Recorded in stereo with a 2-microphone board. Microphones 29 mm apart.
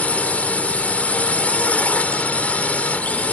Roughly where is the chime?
I don't hear a chime.